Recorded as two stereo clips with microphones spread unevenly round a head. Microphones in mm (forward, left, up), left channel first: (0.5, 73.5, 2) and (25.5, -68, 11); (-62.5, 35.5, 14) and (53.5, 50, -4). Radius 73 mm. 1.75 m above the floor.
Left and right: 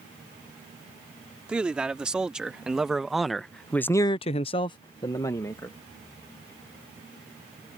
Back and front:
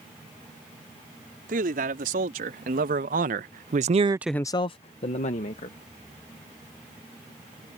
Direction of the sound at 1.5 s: Straight ahead.